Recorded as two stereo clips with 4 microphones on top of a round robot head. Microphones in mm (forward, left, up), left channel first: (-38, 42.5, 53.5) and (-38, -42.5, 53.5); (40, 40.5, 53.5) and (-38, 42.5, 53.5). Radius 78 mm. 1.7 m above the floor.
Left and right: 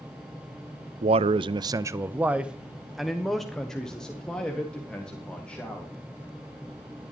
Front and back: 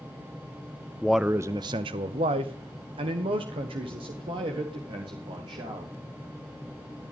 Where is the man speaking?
85° right, 0.5 m; by 5.9 s 165° left, 2.5 m.